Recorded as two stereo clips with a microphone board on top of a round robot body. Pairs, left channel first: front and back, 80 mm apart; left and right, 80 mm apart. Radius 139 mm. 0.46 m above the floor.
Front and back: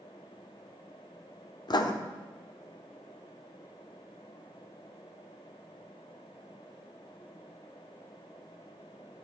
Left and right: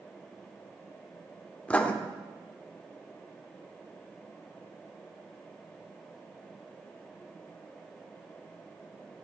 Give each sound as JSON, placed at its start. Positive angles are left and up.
{"t": 1.7, "sound": "writing", "azimuth_deg": 15, "distance_m": 1.1}